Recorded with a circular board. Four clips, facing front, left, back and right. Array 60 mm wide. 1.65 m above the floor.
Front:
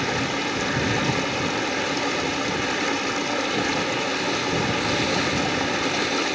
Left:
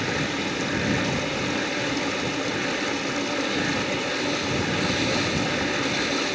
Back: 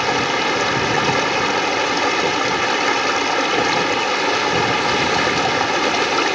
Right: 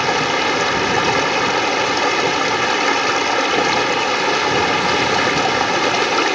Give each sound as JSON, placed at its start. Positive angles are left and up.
{"t": 0.0, "sound": "running water", "azimuth_deg": -125}